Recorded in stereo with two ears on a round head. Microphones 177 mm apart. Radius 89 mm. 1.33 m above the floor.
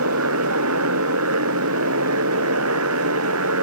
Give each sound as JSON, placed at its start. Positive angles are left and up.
{"t": 0.0, "sound": "a motorcycle", "side_deg": -80}